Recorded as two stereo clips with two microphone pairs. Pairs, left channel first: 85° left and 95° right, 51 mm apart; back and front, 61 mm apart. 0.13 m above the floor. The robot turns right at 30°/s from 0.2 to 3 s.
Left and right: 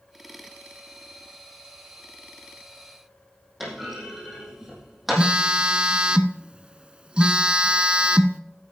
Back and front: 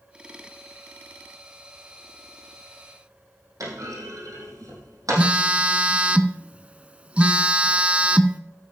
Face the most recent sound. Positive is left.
turn(degrees=-45)